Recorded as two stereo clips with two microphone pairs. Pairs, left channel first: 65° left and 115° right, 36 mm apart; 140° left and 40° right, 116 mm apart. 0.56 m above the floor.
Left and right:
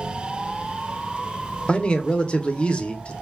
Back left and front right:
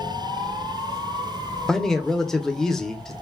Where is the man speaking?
65° left, 0.6 m.